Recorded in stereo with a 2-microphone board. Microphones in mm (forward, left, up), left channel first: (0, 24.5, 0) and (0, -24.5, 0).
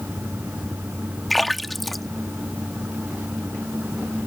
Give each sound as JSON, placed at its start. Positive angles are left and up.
{"t": 1.3, "sound": "a splash", "side_deg": 0}